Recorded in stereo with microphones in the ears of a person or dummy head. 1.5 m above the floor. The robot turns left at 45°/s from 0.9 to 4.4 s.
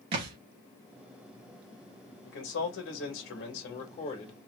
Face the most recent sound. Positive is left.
turn(degrees=20)